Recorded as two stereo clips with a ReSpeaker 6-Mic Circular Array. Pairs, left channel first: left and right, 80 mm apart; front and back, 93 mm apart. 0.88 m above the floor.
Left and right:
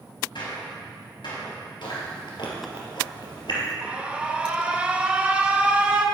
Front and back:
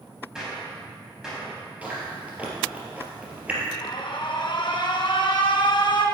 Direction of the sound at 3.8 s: 20° right.